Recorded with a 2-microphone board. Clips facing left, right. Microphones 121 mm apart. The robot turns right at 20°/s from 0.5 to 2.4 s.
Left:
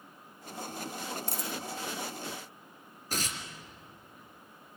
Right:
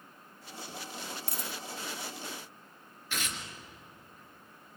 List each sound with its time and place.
1.3 s a dropped coin: 55° right (ahead or behind), 0.6 m; by 1.6 s 60° right (ahead or behind), 0.6 m
3.1 s tearing paper: 40° left (ahead or behind), 2.5 m